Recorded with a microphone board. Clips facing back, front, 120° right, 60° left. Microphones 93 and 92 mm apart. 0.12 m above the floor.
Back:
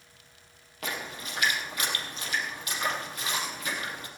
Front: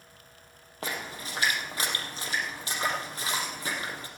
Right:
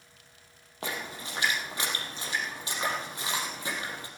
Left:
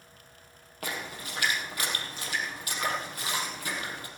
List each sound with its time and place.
0.8 s a splash: 60° right, 3 m